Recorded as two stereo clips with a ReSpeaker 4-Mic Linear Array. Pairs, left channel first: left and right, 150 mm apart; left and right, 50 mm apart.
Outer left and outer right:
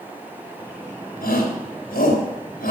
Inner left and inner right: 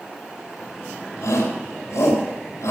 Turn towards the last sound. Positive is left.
turn(degrees=80)